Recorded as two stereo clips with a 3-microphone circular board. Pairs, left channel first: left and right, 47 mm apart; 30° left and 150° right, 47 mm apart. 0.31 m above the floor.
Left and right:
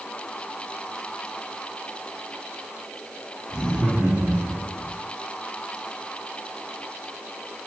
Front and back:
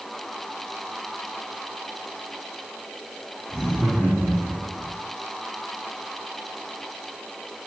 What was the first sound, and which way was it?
Laughter, 65° right.